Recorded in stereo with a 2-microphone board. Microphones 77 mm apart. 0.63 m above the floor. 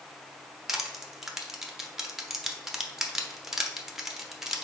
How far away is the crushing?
About 0.7 m.